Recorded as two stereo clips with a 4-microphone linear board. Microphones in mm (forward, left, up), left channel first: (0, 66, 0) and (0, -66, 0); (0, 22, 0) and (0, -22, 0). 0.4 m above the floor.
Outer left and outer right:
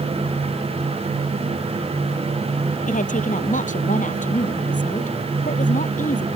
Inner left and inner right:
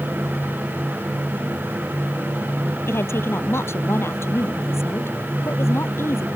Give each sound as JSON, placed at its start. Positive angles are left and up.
{"t": 2.9, "sound": "a woman speaking", "side_deg": 75}